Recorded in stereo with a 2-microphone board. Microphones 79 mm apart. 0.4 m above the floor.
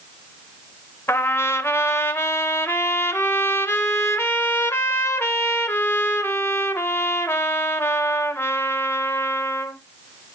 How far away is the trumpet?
About 0.7 m.